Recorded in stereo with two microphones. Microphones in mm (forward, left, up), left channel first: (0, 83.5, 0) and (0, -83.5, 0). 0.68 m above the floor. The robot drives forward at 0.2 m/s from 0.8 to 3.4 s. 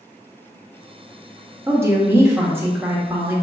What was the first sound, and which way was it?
A woman speaking, 15° right (ahead or behind).